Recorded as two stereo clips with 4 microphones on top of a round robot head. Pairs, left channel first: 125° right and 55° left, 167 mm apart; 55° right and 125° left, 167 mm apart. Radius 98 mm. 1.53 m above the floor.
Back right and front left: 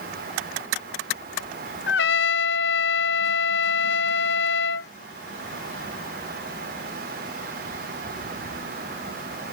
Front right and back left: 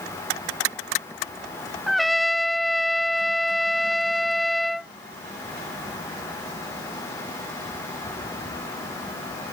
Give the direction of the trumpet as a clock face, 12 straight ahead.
5 o'clock.